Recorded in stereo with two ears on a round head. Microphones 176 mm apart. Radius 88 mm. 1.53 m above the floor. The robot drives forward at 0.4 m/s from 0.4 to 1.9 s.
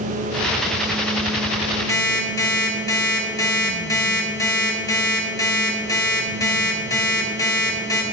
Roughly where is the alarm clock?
Centre.